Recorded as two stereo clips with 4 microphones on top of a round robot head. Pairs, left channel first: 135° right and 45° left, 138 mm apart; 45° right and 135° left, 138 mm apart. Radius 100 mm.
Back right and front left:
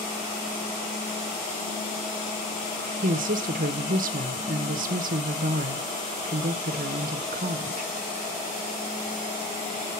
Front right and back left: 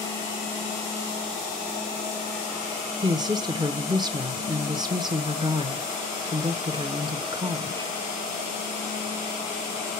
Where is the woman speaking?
75° left, 0.8 m.